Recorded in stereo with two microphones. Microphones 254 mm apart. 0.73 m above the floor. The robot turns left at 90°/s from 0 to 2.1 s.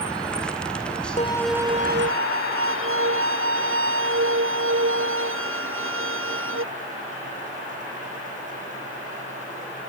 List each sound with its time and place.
1.2 s a violin: 30° left; by 6.6 s 55° right